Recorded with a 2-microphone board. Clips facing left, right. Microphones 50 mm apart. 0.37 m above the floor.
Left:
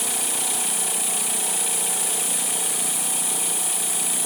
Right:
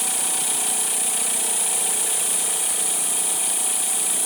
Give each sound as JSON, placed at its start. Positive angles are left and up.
{"t": 0.0, "sound": "an insect", "side_deg": -5, "distance_m": 3.5}